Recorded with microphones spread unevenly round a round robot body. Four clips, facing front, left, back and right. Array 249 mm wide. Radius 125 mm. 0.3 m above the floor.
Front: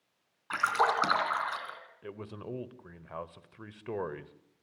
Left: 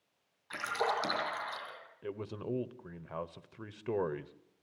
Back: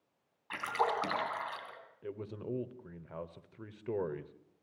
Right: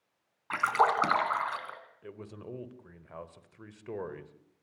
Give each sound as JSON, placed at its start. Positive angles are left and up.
{"t": 0.5, "sound": "a splash", "azimuth_deg": -65, "distance_m": 3.0}
{"t": 2.0, "sound": "a man speaking", "azimuth_deg": 100, "distance_m": 0.9}